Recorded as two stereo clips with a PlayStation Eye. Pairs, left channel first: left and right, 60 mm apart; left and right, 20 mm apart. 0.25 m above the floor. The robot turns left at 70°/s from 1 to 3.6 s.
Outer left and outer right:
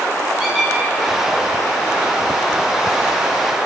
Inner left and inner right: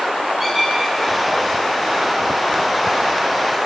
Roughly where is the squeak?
Centre.